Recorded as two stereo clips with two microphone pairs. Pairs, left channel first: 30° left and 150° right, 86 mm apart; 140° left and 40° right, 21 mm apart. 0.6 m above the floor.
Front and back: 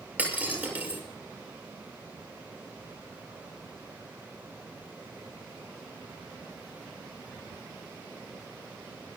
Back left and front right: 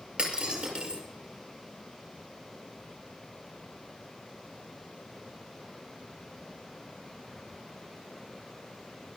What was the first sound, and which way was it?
Breaking glass, 80° right.